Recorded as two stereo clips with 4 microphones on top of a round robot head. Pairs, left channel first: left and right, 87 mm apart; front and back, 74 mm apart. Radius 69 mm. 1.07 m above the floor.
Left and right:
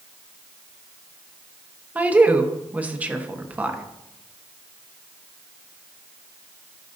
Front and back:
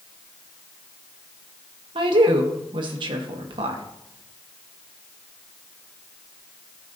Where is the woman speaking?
165° right, 1.2 m.